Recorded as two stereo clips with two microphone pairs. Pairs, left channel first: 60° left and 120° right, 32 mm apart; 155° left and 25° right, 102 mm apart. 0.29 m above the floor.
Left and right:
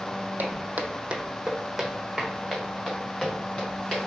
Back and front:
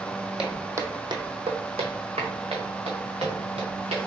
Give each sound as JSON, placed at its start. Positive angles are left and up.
{"t": 0.4, "sound": "footsteps", "azimuth_deg": -100, "distance_m": 0.8}